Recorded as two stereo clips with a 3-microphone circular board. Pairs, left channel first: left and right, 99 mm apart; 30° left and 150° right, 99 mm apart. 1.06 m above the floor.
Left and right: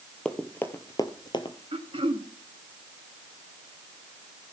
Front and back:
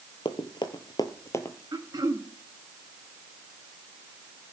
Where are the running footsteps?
10° left, 1.7 m; by 1.6 s 90° left, 1.7 m.